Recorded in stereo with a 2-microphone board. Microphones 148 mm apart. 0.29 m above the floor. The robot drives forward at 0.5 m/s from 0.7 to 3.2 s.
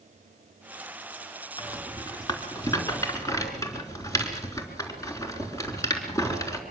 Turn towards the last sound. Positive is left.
turn(degrees=20)  # may be behind; listen again after turning